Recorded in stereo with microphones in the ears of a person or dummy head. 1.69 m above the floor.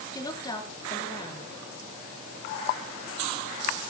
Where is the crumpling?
No crumpling in this recording.